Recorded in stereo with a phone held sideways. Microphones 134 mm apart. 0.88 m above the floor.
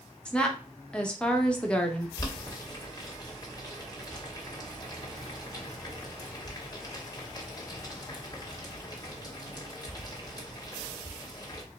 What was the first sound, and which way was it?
A woman speaking, 5° left (ahead or behind).